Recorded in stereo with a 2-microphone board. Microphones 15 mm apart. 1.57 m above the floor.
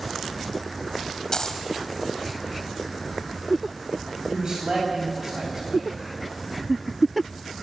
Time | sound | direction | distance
1.3 | a dropped coin | 45° left (ahead or behind) | 2 m
4.3 | a man speaking | 50° right (ahead or behind) | 9 m